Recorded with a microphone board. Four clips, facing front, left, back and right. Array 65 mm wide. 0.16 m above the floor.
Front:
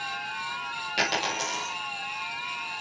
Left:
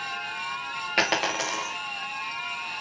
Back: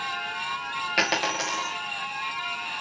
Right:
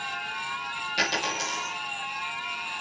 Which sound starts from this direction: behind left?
A dropped coin, at 1.0 s.